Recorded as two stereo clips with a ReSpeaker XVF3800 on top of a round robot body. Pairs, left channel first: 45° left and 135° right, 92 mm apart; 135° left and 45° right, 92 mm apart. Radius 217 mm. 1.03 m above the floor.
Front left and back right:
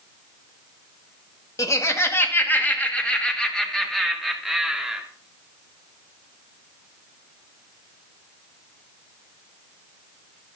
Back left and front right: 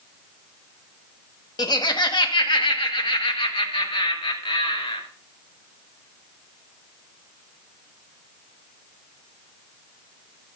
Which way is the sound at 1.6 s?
95° left.